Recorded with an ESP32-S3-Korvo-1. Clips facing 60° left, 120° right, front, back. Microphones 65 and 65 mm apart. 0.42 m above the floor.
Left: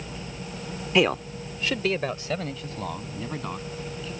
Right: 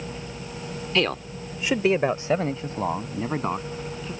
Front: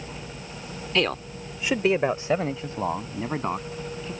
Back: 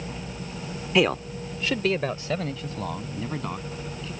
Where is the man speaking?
115° left; by 4.1 s 60° right.